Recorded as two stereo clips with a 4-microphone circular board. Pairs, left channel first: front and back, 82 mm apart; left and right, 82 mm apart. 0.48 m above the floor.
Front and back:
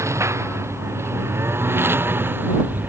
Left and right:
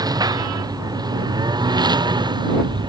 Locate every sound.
0.0 s a lawn mower: 130° right; by 2.9 s 115° right